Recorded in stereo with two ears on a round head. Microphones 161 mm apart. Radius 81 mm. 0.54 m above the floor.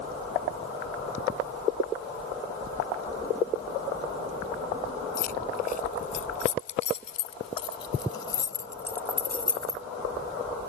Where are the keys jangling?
55° left (ahead or behind); by 9.8 s centre (ahead or behind).